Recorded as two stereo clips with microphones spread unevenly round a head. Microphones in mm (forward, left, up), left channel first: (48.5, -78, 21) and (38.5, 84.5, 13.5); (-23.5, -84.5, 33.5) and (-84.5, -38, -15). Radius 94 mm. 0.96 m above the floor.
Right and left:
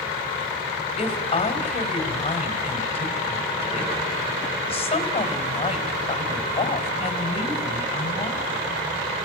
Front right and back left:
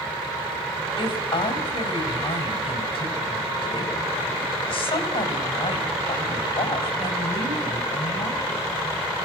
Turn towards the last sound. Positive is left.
turn(degrees=-30)